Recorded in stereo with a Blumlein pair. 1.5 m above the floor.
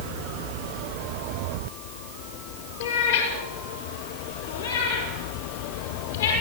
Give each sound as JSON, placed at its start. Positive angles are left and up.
{"t": 2.8, "sound": "a cat meowing", "azimuth_deg": 60, "distance_m": 6.5}